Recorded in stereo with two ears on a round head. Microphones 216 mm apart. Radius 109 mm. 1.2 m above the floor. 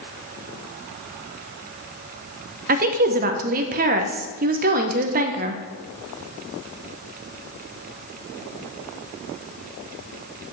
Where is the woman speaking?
35° right (ahead or behind), 0.9 m.